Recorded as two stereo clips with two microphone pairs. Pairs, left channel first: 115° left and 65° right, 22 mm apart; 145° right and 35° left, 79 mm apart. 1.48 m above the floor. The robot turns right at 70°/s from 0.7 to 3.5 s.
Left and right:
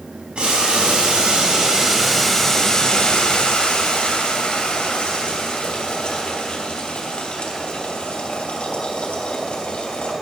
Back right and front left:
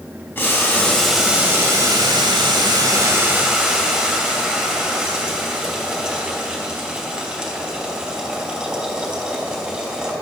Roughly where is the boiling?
Right.